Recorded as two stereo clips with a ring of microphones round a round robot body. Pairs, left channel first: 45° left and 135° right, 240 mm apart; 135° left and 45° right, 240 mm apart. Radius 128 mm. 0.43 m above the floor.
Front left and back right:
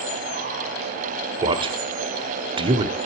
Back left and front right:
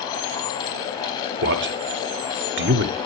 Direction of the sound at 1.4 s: 70° right.